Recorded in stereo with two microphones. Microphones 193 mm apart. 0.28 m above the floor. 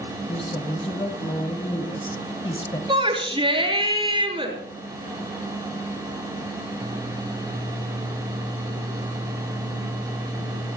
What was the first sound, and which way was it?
A woman speaking, 30° left (ahead or behind).